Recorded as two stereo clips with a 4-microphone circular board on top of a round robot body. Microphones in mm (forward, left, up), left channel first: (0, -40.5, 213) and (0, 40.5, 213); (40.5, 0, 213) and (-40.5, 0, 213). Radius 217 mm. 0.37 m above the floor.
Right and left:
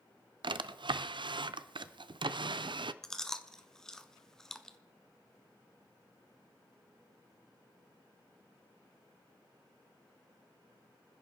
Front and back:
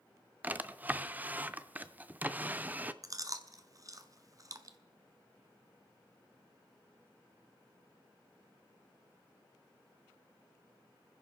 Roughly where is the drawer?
Left.